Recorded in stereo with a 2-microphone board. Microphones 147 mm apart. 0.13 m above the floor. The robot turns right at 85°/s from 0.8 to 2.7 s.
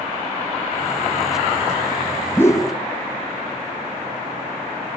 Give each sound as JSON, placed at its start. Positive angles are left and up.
{"t": 2.4, "sound": "a whoosh", "side_deg": 10, "distance_m": 2.5}